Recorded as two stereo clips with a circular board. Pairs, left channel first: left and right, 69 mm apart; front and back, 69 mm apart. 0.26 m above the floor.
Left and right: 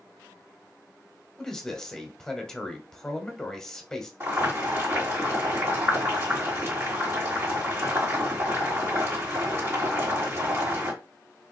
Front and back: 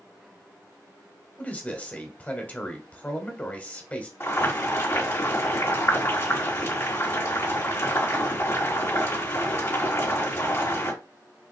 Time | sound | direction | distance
1.4 | a man speaking | 25° left | 0.9 m
4.2 | boiling | 40° right | 3 m